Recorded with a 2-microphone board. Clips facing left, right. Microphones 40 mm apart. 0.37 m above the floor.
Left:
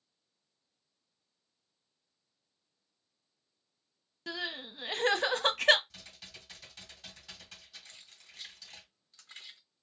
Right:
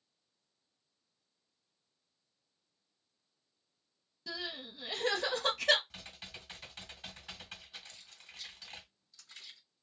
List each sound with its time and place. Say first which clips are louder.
4.3 s crying: left 4 dB; 55° left (ahead or behind), 0.6 m
5.9 s typing on a keyboard: right 3 dB; 35° right (ahead or behind), 1.2 m
7.8 s keys jangling: right 1 dB; 40° left (ahead or behind), 1.2 m